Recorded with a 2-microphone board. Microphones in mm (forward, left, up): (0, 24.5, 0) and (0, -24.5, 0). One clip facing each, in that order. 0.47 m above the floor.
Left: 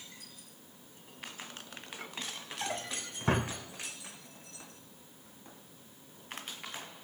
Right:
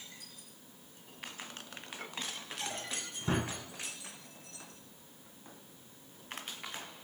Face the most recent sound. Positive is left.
turn(degrees=55)  # may be behind; listen again after turning